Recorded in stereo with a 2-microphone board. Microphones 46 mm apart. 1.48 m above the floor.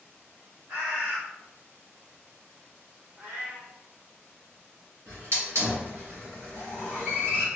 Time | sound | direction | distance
0.7 | a bird | 30° right (ahead or behind) | 1.4 m
3.2 | a cat meowing | 40° right (ahead or behind) | 1.2 m
5.1 | a hiss | 65° right (ahead or behind) | 1.8 m